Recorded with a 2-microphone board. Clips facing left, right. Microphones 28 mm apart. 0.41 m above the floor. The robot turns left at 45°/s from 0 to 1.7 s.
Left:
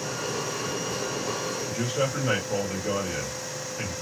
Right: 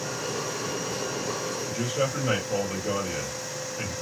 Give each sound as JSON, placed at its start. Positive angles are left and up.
{"t": 1.7, "sound": "a man speaking", "side_deg": 25, "distance_m": 1.7}